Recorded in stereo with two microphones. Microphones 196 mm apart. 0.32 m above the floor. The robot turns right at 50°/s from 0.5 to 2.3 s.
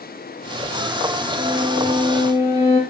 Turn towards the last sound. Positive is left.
turn(degrees=15)